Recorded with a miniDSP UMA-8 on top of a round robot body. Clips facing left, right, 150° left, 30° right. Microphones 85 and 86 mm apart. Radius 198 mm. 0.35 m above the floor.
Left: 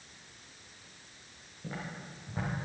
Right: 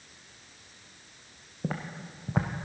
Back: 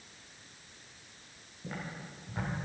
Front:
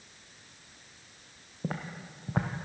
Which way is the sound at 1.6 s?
65° right.